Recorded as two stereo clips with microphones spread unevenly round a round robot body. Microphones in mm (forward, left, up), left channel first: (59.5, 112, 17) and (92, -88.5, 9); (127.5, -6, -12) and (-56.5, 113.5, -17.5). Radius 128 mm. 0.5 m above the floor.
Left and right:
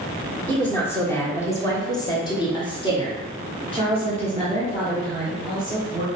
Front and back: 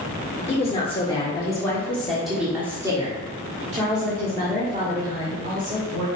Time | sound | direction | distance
0.5 | a woman speaking | 20° left | 1.7 m